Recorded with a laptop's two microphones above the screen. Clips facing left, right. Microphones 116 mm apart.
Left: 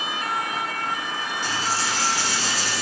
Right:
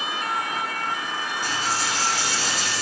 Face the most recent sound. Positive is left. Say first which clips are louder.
# left 1 dB
turn(degrees=-40)  # may be behind; listen again after turning